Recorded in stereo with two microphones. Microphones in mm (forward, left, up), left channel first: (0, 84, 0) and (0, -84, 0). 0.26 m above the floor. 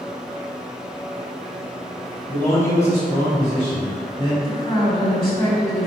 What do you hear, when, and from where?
2.3 s a man speaking: 15° left (ahead or behind), 1.0 m; by 4.3 s 25° left (ahead or behind), 1.3 m
4.4 s a woman speaking: 10° left (ahead or behind), 1.8 m